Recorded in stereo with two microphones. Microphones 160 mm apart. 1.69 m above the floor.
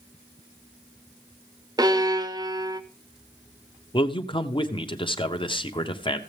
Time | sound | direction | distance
1.8 | a violin | 25° right (ahead or behind) | 0.8 m
3.9 | a man speaking | 35° left (ahead or behind) | 0.9 m